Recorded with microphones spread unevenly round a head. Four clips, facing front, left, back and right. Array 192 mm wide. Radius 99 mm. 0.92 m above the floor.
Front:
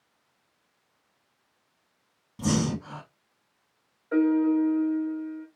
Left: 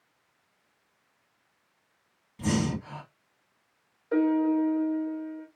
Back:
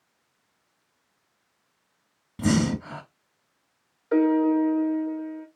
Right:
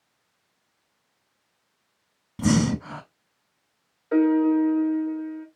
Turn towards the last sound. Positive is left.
turn(degrees=-170)